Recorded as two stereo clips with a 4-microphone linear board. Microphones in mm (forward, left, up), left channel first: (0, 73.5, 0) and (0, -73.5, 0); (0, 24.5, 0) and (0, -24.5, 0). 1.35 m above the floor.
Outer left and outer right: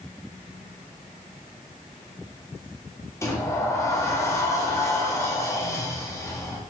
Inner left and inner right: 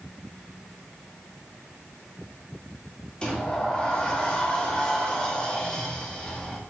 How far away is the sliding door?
About 1.1 m.